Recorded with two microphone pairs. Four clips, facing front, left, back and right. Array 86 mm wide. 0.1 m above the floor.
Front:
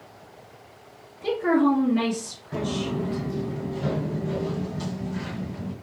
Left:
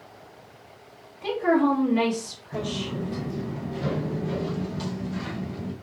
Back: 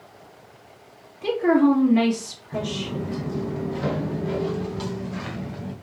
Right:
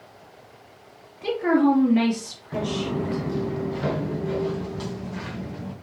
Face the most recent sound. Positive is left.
turn(degrees=-160)